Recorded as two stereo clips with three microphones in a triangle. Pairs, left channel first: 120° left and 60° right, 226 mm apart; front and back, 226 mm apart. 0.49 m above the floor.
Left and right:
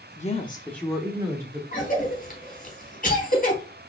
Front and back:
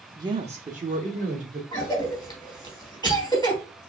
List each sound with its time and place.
0.2 s a woman speaking: 120° left, 0.7 m; by 1.6 s 130° right, 1.4 m
1.7 s a cough: 70° left, 3.5 m